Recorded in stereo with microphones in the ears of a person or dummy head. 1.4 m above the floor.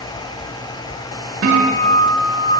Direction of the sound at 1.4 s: 50° right (ahead or behind).